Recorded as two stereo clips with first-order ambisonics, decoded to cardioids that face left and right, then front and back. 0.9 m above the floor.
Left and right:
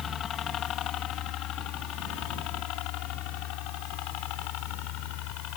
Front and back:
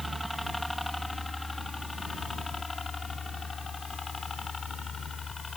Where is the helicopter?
95° left; by 5.6 s 70° left.